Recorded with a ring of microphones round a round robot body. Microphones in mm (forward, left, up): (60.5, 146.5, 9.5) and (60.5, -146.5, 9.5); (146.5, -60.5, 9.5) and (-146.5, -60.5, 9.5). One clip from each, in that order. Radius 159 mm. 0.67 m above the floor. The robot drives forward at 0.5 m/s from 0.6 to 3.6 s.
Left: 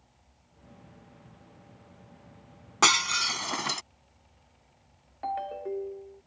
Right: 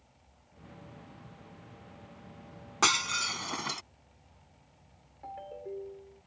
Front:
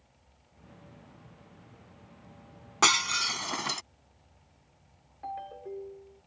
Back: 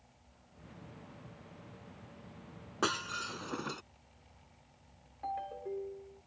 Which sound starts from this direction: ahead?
Breaking glass, at 2.8 s.